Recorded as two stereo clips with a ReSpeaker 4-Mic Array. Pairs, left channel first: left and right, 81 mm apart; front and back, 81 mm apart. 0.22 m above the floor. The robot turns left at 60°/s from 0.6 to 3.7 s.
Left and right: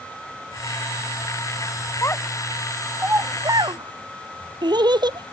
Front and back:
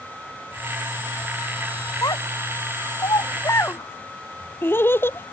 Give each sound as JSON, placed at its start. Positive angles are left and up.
{"t": 2.0, "sound": "a child speaking", "azimuth_deg": 40}